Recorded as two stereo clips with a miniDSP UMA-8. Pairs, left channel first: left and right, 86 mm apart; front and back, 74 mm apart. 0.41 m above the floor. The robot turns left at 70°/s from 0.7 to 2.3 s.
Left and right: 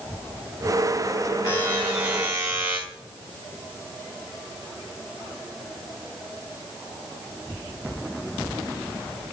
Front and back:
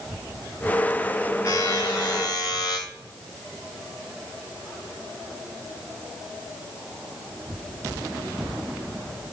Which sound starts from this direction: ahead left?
A buzzer, at 1.4 s.